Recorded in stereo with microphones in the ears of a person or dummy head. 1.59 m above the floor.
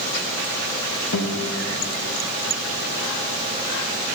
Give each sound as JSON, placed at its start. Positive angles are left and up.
{"t": 1.1, "sound": "a guitar", "side_deg": 75, "distance_m": 1.0}